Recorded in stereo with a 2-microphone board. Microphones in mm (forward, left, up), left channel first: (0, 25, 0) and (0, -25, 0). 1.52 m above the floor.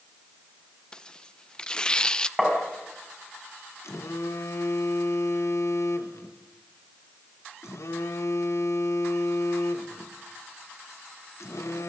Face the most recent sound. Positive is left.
turn(degrees=75)  # may be behind; listen again after turning